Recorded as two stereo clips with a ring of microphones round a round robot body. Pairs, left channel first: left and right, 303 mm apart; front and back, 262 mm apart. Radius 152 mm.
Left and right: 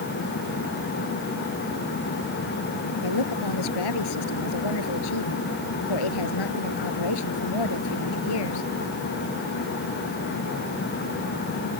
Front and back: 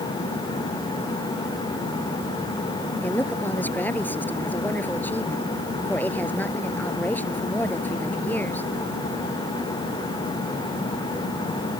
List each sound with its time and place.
3.0 s a woman speaking: 85° left